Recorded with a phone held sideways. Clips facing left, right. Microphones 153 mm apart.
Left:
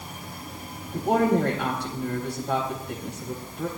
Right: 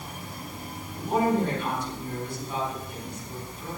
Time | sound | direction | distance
0.9 | a woman speaking | 90° left | 8 m